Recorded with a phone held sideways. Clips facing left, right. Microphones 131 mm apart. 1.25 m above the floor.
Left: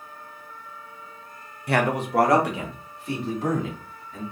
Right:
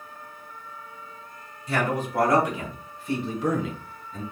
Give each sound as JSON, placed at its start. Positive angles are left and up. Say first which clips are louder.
{"t": 1.7, "sound": "a man speaking", "louder": "left 3 dB", "side_deg": 65, "distance_m": 0.7}